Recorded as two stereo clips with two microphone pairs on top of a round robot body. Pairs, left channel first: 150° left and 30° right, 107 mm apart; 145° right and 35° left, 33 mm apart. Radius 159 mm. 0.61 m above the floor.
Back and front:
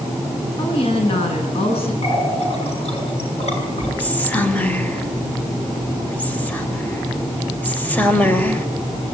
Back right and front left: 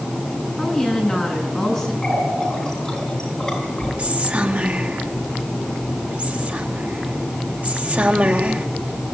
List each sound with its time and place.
0.6 s a woman speaking: 130° left, 9.5 m
2.0 s a running tap: 135° left, 7.5 m
4.0 s whispering: 80° left, 3.5 m